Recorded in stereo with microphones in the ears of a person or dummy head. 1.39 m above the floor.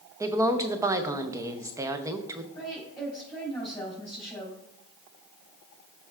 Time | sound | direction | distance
0.2 | a woman speaking | 15° right (ahead or behind) | 0.6 m
2.5 | a woman speaking | 5° left (ahead or behind) | 3.5 m